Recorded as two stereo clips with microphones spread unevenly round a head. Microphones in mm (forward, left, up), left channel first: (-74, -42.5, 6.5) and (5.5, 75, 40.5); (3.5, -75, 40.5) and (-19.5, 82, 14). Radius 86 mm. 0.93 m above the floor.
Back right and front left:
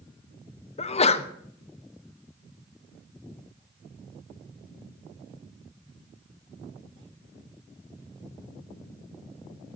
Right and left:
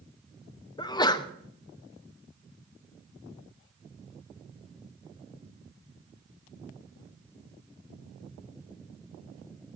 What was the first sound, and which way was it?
A sneeze, 150° right.